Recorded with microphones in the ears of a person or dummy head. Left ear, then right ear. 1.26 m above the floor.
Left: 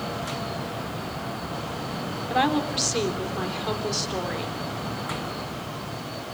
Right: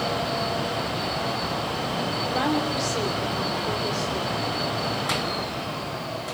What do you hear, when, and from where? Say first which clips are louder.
2.3 s a woman speaking: left 4 dB; 30° left (ahead or behind), 4 m